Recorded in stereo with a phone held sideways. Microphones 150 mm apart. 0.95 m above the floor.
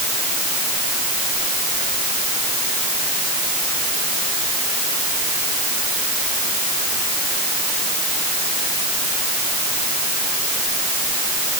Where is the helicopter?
No helicopter in this recording.